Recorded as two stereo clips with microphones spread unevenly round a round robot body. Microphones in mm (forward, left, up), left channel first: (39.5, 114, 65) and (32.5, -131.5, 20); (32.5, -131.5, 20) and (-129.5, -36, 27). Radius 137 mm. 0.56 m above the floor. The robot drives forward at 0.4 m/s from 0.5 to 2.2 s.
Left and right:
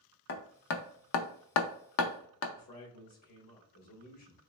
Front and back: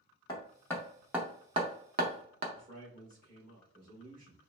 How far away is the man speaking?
About 1.4 m.